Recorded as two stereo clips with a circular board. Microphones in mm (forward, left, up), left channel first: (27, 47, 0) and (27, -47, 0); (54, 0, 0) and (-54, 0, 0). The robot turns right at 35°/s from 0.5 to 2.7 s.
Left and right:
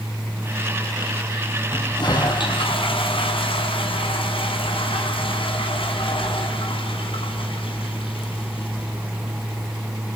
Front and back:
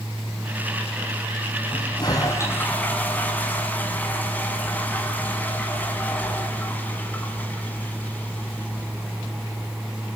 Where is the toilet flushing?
40° left, 6 m; by 9.7 s 75° left, 6 m.